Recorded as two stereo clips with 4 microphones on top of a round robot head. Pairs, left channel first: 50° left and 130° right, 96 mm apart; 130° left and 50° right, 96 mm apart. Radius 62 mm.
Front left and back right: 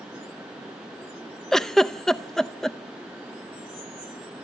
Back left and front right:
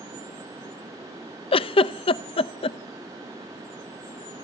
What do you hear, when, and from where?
1.5 s a giggle: 135° left, 0.6 m